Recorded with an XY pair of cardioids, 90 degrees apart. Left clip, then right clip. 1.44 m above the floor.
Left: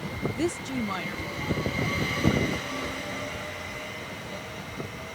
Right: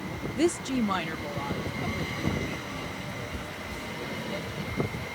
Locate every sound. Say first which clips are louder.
0.4 s a woman speaking: right 5 dB; 20° right; by 5.0 s 40° right